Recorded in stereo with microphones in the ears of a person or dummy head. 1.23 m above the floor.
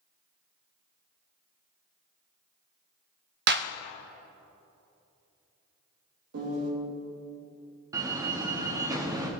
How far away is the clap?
About 0.5 m.